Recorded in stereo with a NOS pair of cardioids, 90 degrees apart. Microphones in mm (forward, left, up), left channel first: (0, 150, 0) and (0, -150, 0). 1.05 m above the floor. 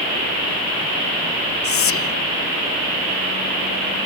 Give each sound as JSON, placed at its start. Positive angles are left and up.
{"t": 1.6, "sound": "whispering", "azimuth_deg": 50}